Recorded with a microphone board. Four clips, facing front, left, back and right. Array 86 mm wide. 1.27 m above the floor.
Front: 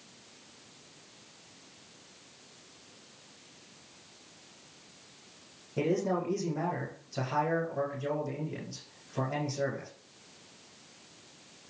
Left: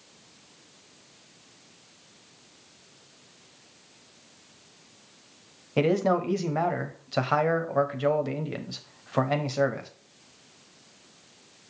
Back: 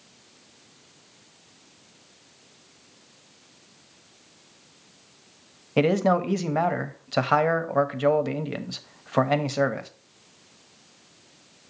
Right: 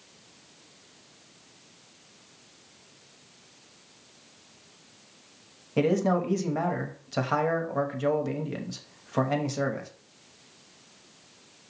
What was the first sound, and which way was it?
A man speaking, 165° left.